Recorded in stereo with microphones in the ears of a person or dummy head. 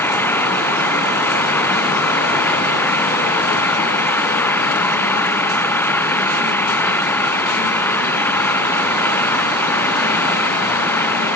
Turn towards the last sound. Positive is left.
turn(degrees=15)  # may be behind; listen again after turning